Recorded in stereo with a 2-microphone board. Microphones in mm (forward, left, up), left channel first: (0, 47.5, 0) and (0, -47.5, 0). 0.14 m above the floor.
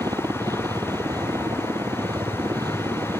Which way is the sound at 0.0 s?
40° right (ahead or behind).